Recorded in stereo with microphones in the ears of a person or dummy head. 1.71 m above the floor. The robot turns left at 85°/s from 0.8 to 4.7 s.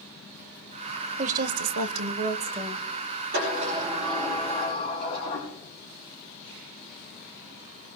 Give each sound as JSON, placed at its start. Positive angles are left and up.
{"t": 1.2, "sound": "a woman speaking", "azimuth_deg": -40, "distance_m": 0.9}
{"t": 3.3, "sound": "a sliding door", "azimuth_deg": -125, "distance_m": 8.0}